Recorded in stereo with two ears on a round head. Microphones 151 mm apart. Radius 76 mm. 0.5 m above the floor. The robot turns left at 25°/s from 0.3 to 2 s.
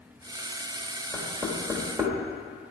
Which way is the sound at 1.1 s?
5° left (ahead or behind).